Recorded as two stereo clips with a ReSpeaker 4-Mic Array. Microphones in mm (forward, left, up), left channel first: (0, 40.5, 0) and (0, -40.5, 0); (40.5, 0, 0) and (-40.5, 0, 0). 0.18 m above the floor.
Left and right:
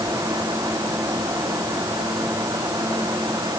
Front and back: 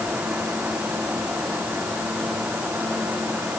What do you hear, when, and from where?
Only background noise.